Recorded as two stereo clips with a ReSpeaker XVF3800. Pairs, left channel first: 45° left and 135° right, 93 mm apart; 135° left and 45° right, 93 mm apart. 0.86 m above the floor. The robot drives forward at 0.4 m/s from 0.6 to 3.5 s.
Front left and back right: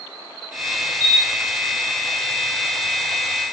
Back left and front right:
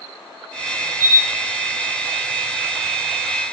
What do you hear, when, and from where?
1.0 s a camera shutter: 100° right, 1.2 m; by 1.3 s 105° right, 1.2 m